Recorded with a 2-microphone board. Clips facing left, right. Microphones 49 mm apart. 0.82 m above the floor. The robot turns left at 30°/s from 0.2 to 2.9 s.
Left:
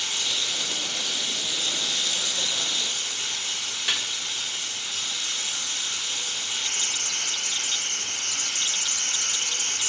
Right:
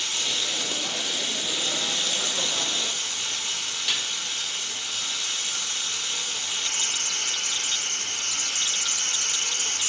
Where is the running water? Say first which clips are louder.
Even; 15° left, 5 m; by 9.9 s 65° right, 5 m.